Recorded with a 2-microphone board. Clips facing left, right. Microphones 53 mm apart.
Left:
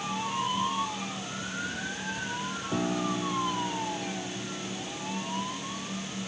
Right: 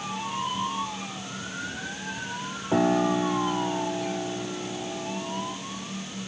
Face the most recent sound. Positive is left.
turn(degrees=-45)  # may be behind; listen again after turning